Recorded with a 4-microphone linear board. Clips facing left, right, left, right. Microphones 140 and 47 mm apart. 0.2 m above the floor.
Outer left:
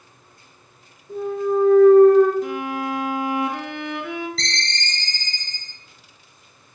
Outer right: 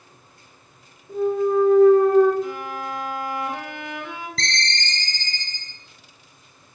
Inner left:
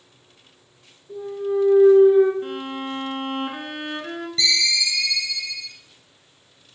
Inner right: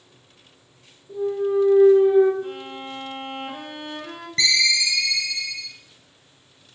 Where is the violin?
65° left (ahead or behind), 0.8 m.